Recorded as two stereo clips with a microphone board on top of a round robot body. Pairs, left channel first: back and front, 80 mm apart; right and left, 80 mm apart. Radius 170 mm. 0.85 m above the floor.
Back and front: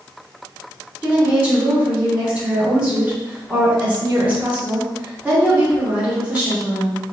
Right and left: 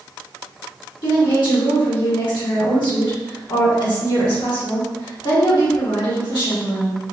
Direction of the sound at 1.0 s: 70° right.